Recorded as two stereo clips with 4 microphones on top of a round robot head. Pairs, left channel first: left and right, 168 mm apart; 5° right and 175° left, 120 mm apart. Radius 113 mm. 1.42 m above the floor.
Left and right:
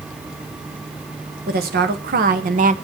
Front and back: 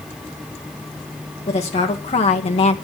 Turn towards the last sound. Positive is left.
turn(degrees=-45)